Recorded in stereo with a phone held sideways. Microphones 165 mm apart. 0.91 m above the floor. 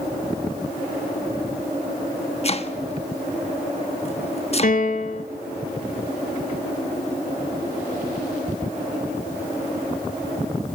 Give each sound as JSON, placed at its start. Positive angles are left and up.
{"t": 2.4, "sound": "chopping", "side_deg": 40, "distance_m": 1.2}
{"t": 4.6, "sound": "a piano", "side_deg": 55, "distance_m": 1.1}